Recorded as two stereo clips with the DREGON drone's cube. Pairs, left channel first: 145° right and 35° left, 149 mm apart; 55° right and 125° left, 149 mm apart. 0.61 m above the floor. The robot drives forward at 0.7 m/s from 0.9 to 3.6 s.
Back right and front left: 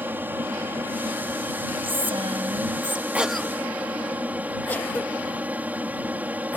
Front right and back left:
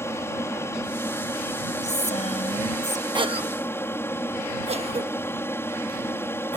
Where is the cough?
105° left; by 6.6 s 140° left.